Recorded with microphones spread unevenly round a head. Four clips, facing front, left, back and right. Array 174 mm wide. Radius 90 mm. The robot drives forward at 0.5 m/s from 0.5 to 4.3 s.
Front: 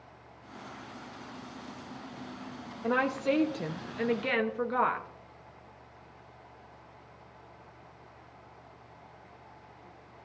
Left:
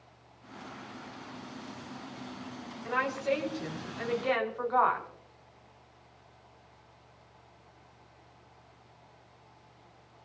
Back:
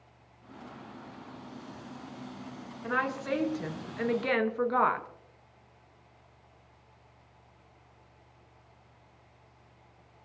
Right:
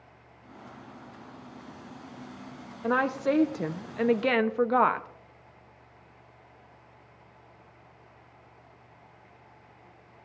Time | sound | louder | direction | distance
2.8 | a woman speaking | right 5 dB, front 3 dB | 60° right | 1.3 m